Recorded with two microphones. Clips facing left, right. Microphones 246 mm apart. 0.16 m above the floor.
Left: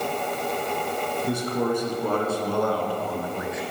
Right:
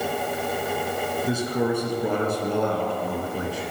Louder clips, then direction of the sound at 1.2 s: Right 1 dB; 5° right (ahead or behind).